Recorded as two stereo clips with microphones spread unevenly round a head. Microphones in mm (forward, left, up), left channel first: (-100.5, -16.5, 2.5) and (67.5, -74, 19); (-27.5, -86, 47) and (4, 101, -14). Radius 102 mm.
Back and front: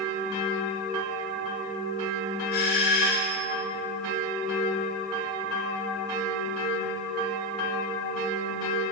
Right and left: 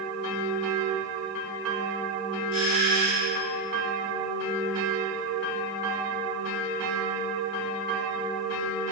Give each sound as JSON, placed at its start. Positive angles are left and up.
{"t": 2.5, "sound": "a doorbell", "azimuth_deg": -165, "distance_m": 10.0}